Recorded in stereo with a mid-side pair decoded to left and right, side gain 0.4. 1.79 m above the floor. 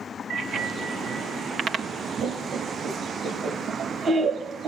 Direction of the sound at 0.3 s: 65° right.